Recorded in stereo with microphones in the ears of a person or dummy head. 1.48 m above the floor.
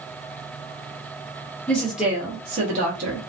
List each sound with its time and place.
1.7 s a woman speaking: 5° left (ahead or behind), 1.3 m; by 3.2 s 65° right (ahead or behind), 1.5 m